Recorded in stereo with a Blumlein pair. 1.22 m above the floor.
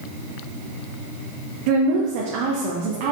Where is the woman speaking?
45° right, 1.0 m.